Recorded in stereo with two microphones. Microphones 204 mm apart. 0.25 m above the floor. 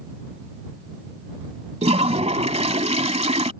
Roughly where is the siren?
No siren in this recording.